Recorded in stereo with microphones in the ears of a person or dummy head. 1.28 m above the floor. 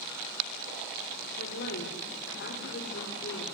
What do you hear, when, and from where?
1.4 s a woman speaking: 65° left (ahead or behind), 4 m